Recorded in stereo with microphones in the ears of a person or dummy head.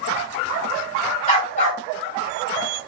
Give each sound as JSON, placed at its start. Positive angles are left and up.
{"t": 1.3, "sound": "a dog barking", "side_deg": 45, "distance_m": 3.5}